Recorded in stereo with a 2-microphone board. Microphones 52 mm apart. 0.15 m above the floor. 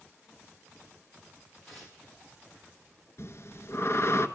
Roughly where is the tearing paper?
Centre.